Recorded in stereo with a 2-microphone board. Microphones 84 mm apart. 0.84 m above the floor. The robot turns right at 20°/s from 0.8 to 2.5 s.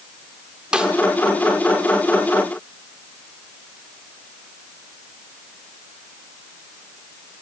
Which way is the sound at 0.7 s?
10° right (ahead or behind).